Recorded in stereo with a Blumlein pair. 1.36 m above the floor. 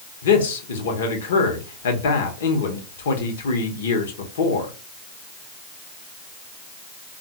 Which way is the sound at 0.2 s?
60° left.